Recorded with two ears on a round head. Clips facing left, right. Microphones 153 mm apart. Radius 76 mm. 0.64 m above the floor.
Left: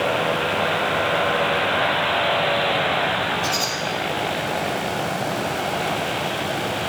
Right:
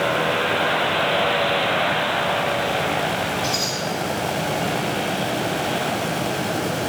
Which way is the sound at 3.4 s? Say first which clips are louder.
Even; 40° left (ahead or behind).